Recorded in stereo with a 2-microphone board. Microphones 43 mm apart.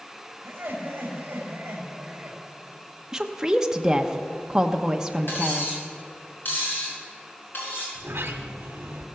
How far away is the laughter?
About 4 m.